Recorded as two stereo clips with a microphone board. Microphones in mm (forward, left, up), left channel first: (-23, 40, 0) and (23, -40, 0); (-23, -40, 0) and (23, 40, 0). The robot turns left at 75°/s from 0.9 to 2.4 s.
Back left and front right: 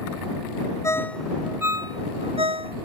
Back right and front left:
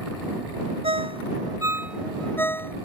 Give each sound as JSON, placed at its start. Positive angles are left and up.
{"t": 0.8, "sound": "a ringtone", "azimuth_deg": 60}